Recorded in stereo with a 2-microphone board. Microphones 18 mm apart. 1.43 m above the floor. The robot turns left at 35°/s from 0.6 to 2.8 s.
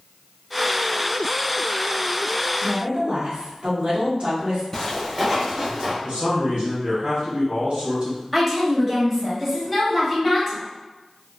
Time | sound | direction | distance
2.6 | a woman speaking | 65° right (ahead or behind) | 1.3 m
4.7 | footsteps | 25° left (ahead or behind) | 1.5 m
6.0 | a man speaking | 75° right (ahead or behind) | 1.7 m
8.3 | a woman speaking | 15° right (ahead or behind) | 1.3 m